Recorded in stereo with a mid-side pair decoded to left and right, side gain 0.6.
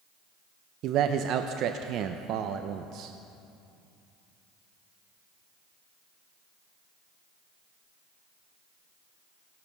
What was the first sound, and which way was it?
A man speaking, 60° right.